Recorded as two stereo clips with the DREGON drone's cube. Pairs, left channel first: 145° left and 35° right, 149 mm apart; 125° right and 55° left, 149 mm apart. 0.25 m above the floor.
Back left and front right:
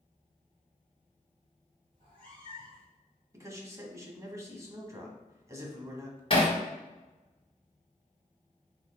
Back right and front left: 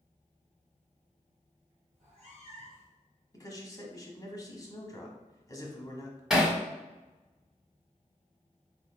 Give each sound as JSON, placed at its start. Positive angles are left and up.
{"t": 1.9, "sound": "a cat meowing", "azimuth_deg": 15, "distance_m": 1.9}
{"t": 3.3, "sound": "a man speaking", "azimuth_deg": -85, "distance_m": 1.1}
{"t": 6.3, "sound": "hammering", "azimuth_deg": 140, "distance_m": 1.5}